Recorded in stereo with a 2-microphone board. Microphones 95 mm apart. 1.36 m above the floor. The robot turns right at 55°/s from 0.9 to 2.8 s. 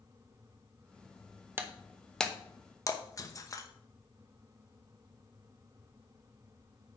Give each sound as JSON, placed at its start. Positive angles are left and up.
{"t": 1.6, "sound": "breaking glass", "side_deg": -25, "distance_m": 0.8}